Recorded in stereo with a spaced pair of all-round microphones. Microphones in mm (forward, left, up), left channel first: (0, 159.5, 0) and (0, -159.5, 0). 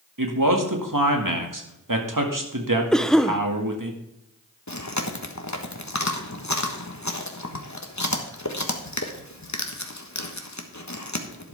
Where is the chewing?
60° left (ahead or behind), 1.3 m.